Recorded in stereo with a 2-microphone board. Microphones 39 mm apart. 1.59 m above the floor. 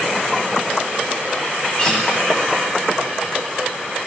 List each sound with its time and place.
1.8 s a guitar: 25° left (ahead or behind), 4.5 m